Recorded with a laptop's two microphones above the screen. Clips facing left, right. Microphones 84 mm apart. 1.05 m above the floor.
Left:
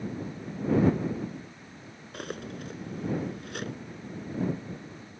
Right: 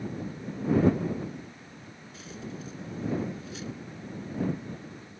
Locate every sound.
2.1 s cutlery clinking: 60° left (ahead or behind)